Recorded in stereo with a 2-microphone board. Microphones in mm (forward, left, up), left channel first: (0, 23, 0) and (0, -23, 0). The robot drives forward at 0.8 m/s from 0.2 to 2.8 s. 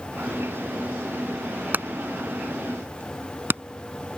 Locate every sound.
1.7 s hammering: 45° right (ahead or behind); by 3.6 s 50° right (ahead or behind)